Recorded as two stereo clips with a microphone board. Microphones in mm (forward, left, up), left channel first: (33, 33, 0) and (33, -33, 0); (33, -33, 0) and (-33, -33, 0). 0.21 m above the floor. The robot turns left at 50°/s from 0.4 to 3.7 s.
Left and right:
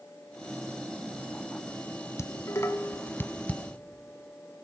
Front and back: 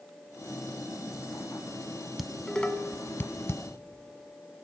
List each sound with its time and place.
2.2 s dishes clattering: 95° left, 1.0 m; by 3.6 s 25° left, 1.0 m